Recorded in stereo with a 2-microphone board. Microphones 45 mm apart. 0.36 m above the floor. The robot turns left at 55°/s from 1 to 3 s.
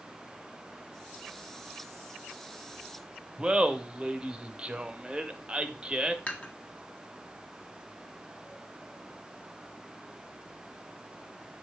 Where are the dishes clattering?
35° left (ahead or behind), 2.0 m.